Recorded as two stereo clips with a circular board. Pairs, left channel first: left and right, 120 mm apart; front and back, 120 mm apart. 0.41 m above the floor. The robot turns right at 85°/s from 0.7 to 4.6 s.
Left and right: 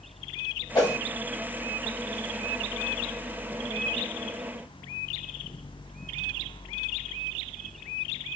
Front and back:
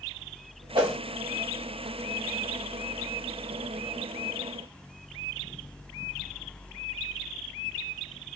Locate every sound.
0.8 s a whoosh: 140° left, 0.8 m; by 1.0 s 160° left, 0.8 m